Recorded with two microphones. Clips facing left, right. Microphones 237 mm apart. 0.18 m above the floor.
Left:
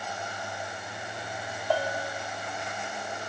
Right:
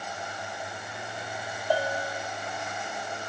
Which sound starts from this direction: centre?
A bell, at 1.7 s.